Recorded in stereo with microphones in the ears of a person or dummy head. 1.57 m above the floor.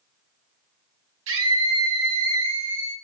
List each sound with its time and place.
1.3 s a scream: 80° right, 1.6 m; by 2.9 s 65° right (ahead or behind), 1.2 m